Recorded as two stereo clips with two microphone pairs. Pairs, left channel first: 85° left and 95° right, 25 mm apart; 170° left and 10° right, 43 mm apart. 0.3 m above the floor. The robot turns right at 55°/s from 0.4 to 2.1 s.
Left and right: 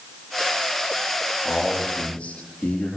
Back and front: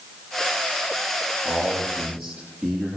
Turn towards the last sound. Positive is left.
turn(degrees=85)